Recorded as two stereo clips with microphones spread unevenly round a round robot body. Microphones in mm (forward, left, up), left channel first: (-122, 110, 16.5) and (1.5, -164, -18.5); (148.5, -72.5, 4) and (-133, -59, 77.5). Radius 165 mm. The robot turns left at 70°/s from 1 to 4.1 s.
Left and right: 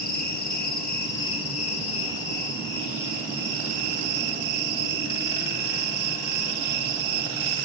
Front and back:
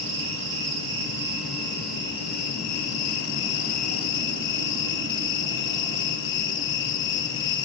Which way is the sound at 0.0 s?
160° left.